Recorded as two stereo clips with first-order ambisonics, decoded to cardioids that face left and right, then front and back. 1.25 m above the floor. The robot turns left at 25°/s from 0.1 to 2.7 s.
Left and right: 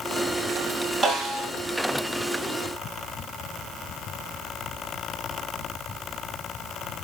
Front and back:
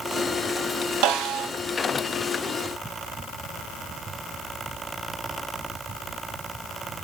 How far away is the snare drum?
About 1.7 m.